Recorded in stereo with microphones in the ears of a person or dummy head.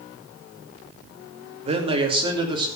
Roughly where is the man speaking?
Right.